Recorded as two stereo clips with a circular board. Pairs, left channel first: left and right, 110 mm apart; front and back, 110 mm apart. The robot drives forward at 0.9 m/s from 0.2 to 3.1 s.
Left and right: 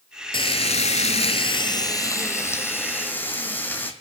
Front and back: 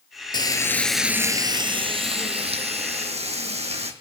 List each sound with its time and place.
0.3 s frying: 50° left, 0.8 m; by 3.9 s 165° left, 2 m